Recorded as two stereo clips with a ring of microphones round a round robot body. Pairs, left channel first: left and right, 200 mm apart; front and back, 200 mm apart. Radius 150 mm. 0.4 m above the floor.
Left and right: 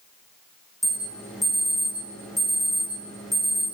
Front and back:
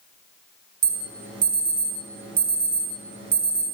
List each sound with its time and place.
0.8 s an alarm: straight behind, 2.5 m